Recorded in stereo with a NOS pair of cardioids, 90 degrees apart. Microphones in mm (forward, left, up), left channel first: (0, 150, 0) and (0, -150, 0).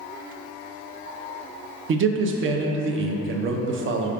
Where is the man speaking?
45° right, 0.6 m.